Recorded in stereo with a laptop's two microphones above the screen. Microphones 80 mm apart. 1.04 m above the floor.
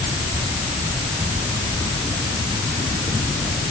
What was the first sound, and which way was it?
Only background noise.